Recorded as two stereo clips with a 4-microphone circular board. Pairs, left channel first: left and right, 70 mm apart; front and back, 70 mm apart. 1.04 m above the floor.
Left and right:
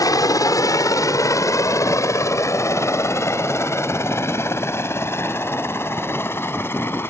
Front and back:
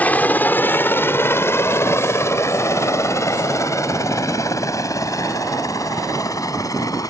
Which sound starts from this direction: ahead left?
A helicopter, at 0.0 s.